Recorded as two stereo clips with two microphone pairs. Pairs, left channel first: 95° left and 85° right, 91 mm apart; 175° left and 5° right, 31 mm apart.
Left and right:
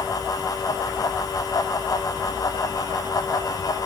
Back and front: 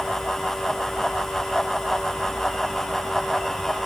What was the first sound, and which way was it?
Only background noise.